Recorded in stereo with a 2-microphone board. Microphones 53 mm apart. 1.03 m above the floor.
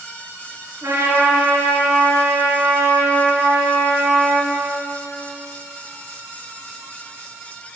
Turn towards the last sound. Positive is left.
turn(degrees=-70)  # may be behind; listen again after turning